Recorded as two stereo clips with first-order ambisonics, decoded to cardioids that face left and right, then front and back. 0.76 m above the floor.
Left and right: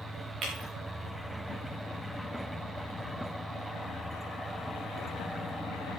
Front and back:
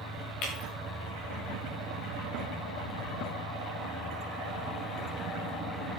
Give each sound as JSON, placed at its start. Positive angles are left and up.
{"t": 0.4, "sound": "breaking glass", "azimuth_deg": -25, "distance_m": 5.0}